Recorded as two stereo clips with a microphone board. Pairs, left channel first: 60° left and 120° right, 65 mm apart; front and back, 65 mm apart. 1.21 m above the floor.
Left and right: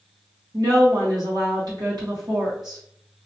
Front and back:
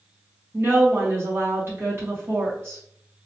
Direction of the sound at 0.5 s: 125° right.